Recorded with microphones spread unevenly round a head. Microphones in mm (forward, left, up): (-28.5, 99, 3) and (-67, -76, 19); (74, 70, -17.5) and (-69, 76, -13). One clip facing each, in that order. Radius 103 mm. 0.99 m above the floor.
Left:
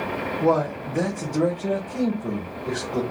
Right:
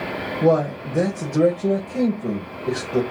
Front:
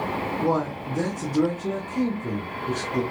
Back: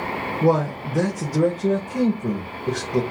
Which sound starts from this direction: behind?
A man speaking, at 0.4 s.